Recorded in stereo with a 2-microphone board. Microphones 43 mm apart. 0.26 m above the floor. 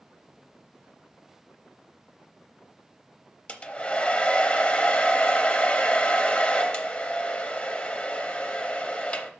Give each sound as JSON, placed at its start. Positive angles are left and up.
{"t": 3.5, "sound": "a hair dryer", "side_deg": 25, "distance_m": 0.6}